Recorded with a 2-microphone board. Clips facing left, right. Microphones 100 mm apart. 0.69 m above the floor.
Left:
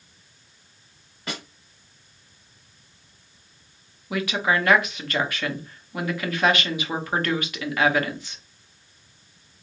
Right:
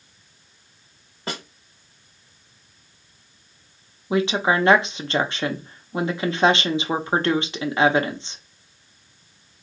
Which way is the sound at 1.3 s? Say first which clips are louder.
Right 3 dB; 35° right (ahead or behind).